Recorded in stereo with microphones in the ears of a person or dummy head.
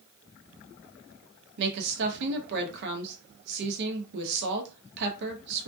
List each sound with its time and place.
1.6 s a woman speaking: 60° right (ahead or behind), 0.8 m